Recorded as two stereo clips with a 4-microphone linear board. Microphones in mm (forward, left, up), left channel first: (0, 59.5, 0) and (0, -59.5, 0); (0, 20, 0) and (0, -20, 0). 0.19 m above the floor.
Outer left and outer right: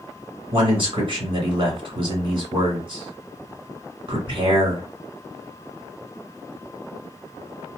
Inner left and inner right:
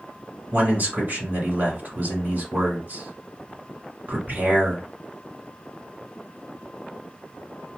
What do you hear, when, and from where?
0.5 s a man speaking: 50° right (ahead or behind), 1.5 m